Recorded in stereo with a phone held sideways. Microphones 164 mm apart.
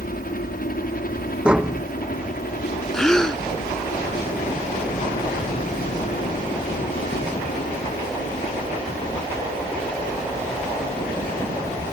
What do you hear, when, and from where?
0.0 s a helicopter: 60° left (ahead or behind)
1.4 s tapping: 5° right (ahead or behind)
2.9 s a gasp: 5° left (ahead or behind)